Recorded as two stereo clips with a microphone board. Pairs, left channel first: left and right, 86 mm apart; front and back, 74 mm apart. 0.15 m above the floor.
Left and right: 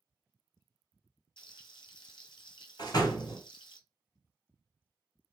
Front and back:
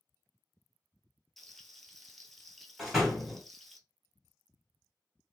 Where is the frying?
85° left, 0.7 m.